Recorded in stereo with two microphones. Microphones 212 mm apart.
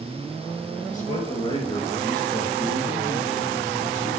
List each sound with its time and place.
0.9 s a man speaking: 40° left (ahead or behind), 3.5 m; by 4.1 s 20° right (ahead or behind), 5 m